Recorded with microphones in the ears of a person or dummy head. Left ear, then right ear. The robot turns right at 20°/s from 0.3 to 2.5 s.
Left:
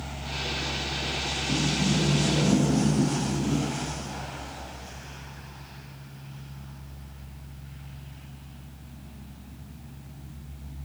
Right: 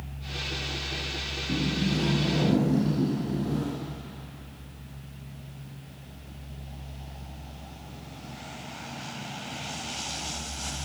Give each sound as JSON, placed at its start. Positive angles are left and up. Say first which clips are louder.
{"t": 1.5, "sound": "a sliding door", "louder": "left 2 dB", "side_deg": 0, "distance_m": 9.0}